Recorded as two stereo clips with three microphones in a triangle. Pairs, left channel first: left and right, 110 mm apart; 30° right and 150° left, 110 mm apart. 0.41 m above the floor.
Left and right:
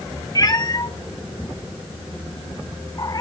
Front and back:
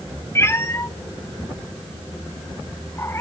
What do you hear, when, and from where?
0.3 s a cat meowing: 35° left, 1.0 m